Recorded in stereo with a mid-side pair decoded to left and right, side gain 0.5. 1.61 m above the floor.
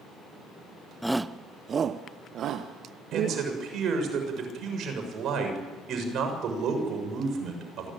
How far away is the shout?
About 0.7 m.